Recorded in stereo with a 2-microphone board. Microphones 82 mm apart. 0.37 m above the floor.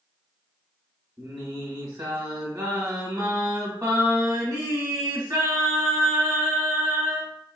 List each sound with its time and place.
1.2 s singing: 50° right (ahead or behind), 0.9 m